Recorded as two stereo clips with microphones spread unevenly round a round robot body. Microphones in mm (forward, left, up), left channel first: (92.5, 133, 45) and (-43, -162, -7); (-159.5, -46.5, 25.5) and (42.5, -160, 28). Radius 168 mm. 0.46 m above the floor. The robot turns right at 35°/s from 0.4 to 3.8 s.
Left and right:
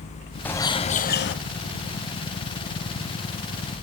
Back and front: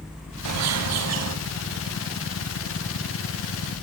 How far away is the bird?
About 0.7 m.